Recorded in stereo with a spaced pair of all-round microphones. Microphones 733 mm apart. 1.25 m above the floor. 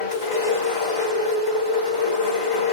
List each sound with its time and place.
0.0 s a machine running: 60° left (ahead or behind), 2.5 m